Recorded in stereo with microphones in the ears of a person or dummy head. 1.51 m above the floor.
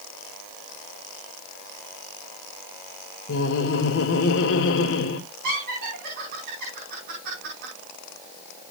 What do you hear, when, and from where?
3.3 s laughter: 60° left (ahead or behind), 1.6 m
5.4 s laughter: 50° right (ahead or behind), 5.5 m